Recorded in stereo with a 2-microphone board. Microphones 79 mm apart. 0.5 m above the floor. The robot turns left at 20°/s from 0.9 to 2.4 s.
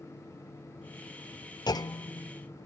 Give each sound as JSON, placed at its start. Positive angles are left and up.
{"t": 1.7, "sound": "a clunk", "side_deg": 55, "distance_m": 0.5}